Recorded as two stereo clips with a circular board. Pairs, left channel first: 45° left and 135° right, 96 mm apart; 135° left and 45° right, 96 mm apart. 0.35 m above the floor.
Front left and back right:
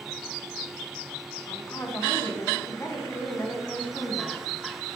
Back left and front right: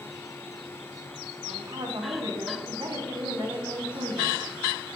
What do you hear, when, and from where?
1.5 s a woman speaking: 15° right, 2.5 m